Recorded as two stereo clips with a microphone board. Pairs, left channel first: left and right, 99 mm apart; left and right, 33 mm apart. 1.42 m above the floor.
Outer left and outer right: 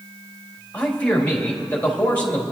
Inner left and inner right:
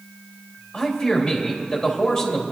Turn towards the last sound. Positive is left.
turn(degrees=15)  # may be behind; listen again after turning